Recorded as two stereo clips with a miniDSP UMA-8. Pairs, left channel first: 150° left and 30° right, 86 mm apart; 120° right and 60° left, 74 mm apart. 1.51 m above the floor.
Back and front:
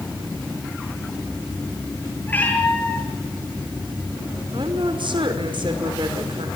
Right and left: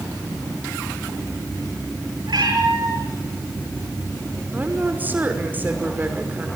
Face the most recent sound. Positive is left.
turn(degrees=-5)